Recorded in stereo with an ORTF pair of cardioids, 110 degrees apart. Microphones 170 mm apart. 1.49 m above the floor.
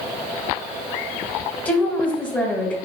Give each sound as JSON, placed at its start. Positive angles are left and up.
{"t": 1.6, "sound": "a woman speaking", "azimuth_deg": 10, "distance_m": 0.9}